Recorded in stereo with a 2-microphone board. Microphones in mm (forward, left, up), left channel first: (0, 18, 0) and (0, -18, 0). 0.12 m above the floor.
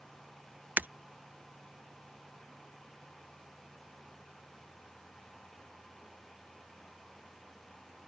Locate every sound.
0.8 s breaking glass: 55° right (ahead or behind)